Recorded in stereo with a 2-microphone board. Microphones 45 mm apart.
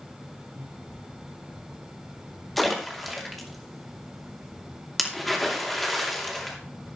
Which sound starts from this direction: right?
Breathing, at 0.5 s.